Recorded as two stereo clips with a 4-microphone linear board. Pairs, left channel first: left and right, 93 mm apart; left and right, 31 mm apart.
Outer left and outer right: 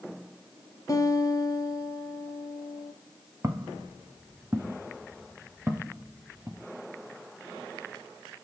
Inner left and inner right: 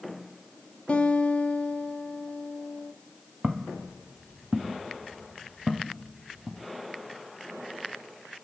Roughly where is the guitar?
Left.